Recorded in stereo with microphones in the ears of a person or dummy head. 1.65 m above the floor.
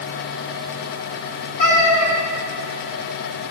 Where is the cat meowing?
40° left (ahead or behind), 3.5 m.